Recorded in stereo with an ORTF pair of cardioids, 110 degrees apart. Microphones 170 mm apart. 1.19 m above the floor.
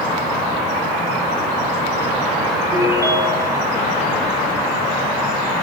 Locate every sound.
2.7 s a ringtone: 15° right, 3 m